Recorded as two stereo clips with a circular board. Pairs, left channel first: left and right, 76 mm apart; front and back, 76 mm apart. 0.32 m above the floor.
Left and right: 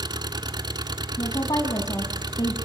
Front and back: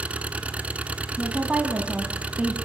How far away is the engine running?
About 1.2 m.